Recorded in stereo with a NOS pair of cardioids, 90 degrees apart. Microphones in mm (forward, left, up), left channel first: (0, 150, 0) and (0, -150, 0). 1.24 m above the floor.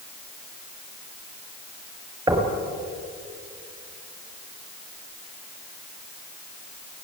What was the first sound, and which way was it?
Knocking, 15° right.